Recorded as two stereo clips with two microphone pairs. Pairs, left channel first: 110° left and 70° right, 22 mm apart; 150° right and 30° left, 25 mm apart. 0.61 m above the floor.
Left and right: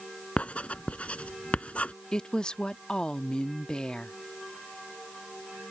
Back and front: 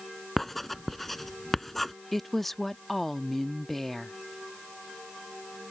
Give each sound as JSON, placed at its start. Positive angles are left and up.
{"t": 0.4, "sound": "writing", "azimuth_deg": 125}
{"t": 2.1, "sound": "a woman speaking", "azimuth_deg": 140}